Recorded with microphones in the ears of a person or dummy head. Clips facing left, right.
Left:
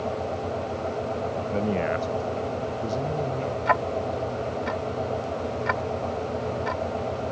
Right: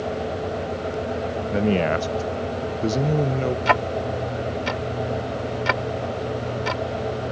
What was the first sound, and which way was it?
A man speaking, 15° right (ahead or behind).